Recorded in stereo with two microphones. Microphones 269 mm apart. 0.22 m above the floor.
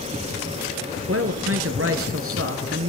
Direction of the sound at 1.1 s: 55° right (ahead or behind).